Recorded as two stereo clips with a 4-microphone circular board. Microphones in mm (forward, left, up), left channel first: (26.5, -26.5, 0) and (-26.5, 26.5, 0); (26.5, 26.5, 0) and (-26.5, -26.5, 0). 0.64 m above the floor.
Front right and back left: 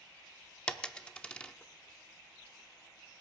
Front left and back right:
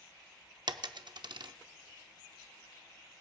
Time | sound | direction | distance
0.7 | a dropped coin | 120° right | 0.5 m